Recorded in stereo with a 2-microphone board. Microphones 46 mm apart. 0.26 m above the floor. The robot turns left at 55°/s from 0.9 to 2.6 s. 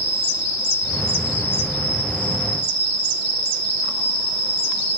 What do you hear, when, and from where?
0.0 s an insect: 95° left, 1.0 m; by 5.0 s 5° left, 1.0 m